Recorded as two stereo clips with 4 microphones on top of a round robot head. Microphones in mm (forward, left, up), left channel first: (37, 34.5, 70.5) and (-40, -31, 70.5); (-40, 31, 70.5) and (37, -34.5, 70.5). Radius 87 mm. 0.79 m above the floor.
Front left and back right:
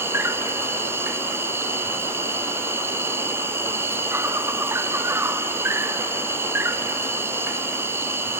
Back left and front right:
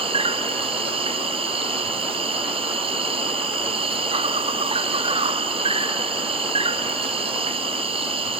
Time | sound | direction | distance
0.0 | an insect | 75° right | 0.8 m